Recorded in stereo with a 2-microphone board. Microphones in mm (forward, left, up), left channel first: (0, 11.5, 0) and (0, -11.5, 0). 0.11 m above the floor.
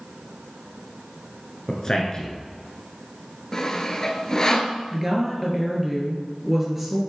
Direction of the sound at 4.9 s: 10° right (ahead or behind).